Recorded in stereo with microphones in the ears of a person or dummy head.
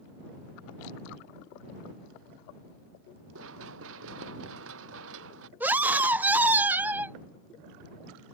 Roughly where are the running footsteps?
Right.